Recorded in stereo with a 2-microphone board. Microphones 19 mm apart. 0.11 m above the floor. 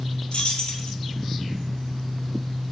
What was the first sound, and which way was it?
Keys jangling, 60° left (ahead or behind).